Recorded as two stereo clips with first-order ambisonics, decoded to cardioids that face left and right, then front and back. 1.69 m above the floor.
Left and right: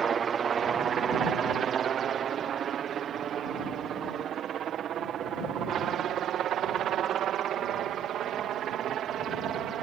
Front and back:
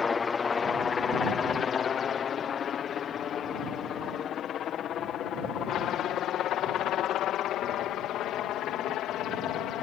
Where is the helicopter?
55° right; by 9.8 s 40° right.